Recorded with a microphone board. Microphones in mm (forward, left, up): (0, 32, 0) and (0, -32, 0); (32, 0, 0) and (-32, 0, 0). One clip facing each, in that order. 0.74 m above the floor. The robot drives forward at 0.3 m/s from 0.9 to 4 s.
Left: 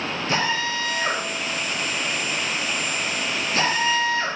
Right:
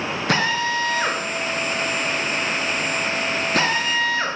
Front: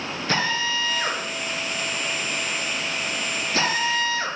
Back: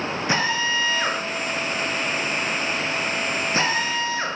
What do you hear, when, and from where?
0.3 s a drill: 110° right, 4.5 m; by 4.3 s 120° right, 5 m